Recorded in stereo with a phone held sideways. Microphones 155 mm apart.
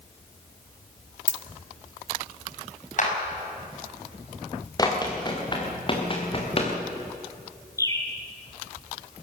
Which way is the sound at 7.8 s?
20° left (ahead or behind).